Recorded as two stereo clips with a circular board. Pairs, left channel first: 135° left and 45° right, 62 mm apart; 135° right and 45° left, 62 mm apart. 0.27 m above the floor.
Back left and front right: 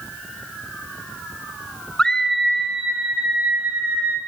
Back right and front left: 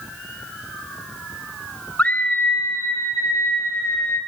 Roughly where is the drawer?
No drawer in this recording.